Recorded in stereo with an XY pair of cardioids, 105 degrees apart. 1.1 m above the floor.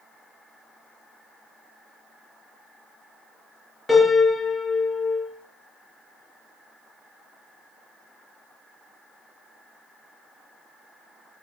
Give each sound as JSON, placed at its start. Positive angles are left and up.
{"t": 3.9, "sound": "a piano", "azimuth_deg": 15, "distance_m": 4.0}